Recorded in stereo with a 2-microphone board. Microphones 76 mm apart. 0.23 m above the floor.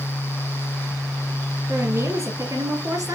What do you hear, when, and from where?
1.7 s a woman speaking: 40° right (ahead or behind), 3.5 m; by 3.2 s 55° right (ahead or behind), 2.5 m